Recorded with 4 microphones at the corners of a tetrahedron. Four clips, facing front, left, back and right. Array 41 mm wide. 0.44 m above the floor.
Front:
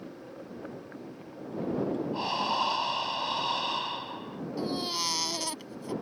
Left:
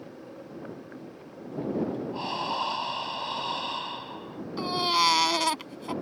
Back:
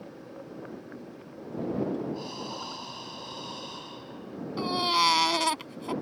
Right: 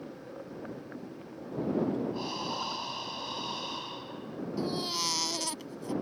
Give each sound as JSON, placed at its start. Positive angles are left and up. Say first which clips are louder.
{"t": 2.1, "sound": "breathing", "louder": "left 5 dB, front 8 dB", "azimuth_deg": 35}
{"t": 4.6, "sound": "a baby crying", "louder": "left 9 dB, back 7 dB", "azimuth_deg": 135}